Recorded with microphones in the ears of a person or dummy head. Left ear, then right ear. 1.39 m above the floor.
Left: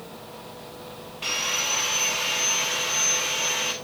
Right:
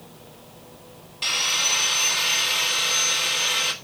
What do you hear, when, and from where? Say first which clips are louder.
1.2 s sawing: right 4 dB; 25° right (ahead or behind), 1.6 m